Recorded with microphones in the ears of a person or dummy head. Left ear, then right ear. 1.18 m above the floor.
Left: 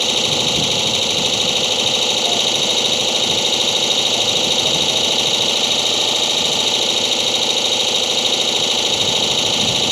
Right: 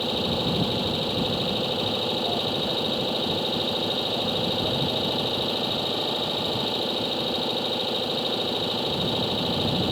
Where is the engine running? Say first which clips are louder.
Left 9 dB; 75° left (ahead or behind).